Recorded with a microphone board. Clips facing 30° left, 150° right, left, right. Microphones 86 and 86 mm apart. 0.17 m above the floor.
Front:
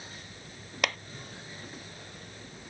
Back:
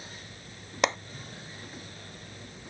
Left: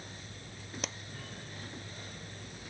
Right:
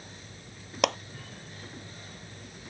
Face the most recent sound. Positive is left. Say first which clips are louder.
# back 5 dB, right 16 dB
turn(degrees=-85)